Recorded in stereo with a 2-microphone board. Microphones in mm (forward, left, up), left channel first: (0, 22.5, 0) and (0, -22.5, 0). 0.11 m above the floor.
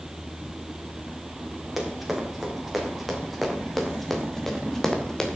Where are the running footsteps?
5° right (ahead or behind), 4.5 m; by 5.4 s 15° left (ahead or behind), 2.5 m.